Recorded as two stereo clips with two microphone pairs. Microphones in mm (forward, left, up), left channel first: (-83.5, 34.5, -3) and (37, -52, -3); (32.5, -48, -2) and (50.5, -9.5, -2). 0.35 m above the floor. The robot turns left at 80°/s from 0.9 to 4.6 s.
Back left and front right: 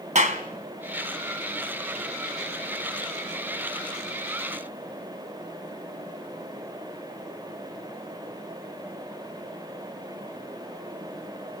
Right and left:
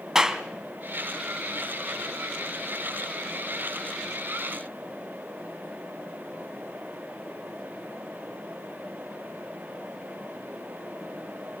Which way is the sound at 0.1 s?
10° right.